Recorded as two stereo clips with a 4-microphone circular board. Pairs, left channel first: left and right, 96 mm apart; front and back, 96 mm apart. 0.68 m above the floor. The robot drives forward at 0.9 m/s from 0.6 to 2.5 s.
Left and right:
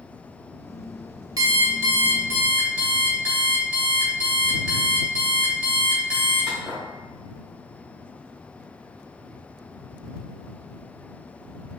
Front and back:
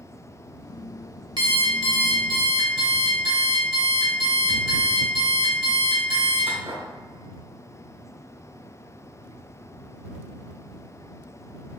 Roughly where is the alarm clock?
Behind right.